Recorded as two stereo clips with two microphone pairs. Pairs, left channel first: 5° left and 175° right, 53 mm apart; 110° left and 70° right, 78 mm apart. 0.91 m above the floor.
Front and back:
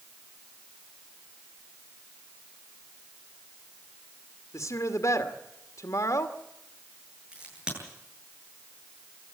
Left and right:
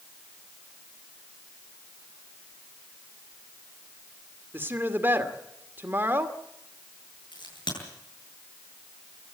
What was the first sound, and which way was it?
A woman speaking, 5° right.